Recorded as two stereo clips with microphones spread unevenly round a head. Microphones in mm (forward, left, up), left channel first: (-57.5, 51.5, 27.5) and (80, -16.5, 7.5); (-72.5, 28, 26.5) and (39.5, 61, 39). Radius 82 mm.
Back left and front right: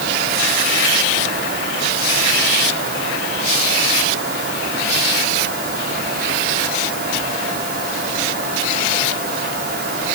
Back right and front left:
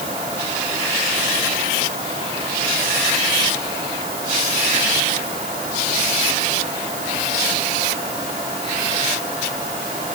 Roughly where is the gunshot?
I don't hear a gunshot.